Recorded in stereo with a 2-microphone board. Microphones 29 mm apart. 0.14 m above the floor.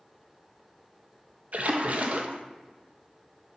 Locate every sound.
1.5 s a splash: 55° right (ahead or behind), 0.7 m